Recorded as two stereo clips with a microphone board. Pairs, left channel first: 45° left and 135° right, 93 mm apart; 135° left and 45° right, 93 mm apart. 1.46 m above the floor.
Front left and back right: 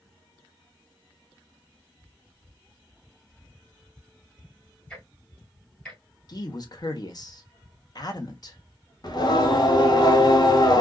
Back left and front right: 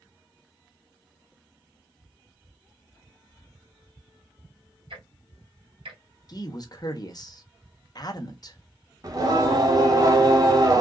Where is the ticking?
35° right, 1.6 m.